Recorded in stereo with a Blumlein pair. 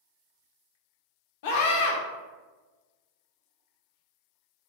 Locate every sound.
1.4 s a scream: 50° left, 0.7 m